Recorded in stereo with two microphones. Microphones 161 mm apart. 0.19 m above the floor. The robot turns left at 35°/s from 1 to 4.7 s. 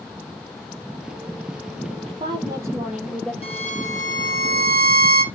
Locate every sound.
2.1 s a woman speaking: 140° right, 5 m; by 3.3 s 175° left, 5 m
3.4 s a violin: 145° left, 3 m; by 5.2 s 100° left, 3 m